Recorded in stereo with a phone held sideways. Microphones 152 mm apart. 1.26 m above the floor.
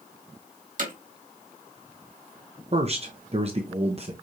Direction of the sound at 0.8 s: 60° right (ahead or behind).